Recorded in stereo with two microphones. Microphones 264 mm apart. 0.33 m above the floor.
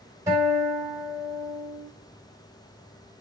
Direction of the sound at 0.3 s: 10° right (ahead or behind).